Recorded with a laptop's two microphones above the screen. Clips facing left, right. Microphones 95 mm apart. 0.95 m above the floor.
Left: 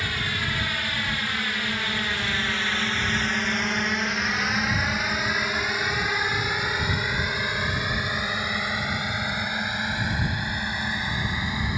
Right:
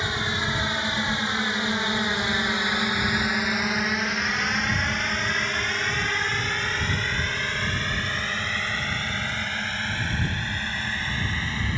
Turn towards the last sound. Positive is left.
turn(degrees=15)  # may be behind; listen again after turning